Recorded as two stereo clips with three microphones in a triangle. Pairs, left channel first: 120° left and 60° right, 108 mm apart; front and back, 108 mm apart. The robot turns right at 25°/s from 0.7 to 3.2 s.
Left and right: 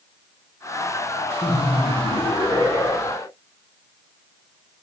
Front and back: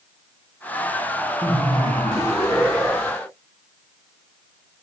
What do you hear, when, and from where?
1.4 s laughter: 150° right, 2.5 m; by 3.3 s 105° right, 2.5 m